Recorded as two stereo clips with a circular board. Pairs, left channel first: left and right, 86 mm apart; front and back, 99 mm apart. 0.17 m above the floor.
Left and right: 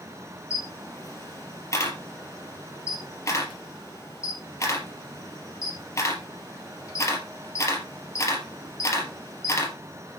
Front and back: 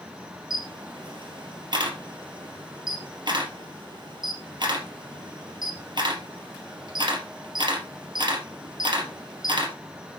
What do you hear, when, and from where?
0.5 s a camera shutter: 145° left, 2.5 m